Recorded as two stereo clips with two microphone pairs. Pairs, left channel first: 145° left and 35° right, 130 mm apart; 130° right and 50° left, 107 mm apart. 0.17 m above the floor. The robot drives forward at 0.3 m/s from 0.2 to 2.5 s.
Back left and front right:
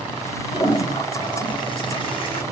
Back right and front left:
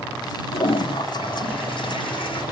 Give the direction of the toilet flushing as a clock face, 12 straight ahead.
5 o'clock.